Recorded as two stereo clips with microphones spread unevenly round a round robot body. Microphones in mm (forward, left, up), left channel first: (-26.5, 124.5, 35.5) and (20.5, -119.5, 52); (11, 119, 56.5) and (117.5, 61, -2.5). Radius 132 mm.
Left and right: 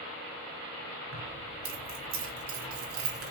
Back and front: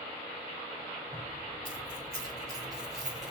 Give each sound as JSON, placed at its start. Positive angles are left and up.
{"t": 1.1, "sound": "keys jangling", "azimuth_deg": -120, "distance_m": 5.0}